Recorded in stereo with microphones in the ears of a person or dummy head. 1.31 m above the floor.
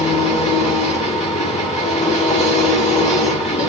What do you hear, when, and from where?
0.0 s an engine running: 35° left (ahead or behind), 1.9 m